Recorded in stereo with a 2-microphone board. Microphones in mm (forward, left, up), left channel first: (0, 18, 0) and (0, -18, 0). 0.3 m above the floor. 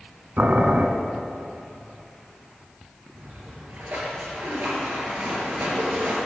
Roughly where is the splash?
Right.